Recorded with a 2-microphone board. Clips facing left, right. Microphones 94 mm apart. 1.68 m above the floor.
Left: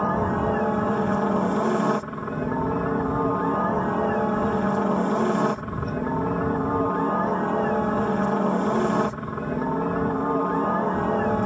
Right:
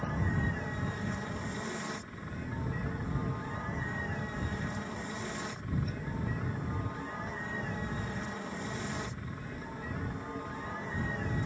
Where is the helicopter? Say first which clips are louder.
Left 12 dB; 55° left (ahead or behind).